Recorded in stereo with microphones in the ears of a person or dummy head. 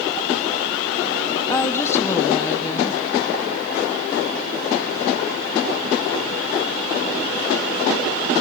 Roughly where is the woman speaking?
Centre.